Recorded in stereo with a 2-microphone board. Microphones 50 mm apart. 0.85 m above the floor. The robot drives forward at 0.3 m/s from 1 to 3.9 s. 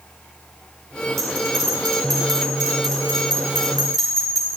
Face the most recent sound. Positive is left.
turn(degrees=5)  # may be behind; listen again after turning